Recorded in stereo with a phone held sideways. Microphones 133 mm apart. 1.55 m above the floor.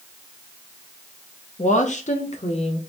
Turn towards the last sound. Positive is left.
turn(degrees=50)  # may be behind; listen again after turning